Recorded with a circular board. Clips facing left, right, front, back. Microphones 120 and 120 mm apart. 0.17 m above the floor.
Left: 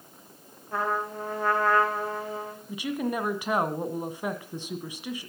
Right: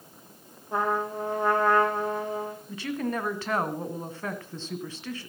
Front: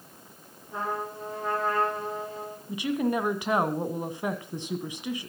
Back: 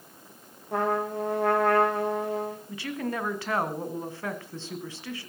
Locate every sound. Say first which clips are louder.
0.7 s a trumpet: right 2 dB, back 6 dB; 160° right, 4 m
2.7 s a woman speaking: left 2 dB, front 10 dB; 40° left, 1.5 m